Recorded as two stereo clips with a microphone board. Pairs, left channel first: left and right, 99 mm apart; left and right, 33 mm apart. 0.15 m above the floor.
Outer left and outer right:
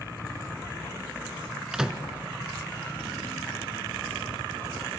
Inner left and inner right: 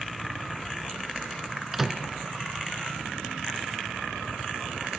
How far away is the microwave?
About 1.1 m.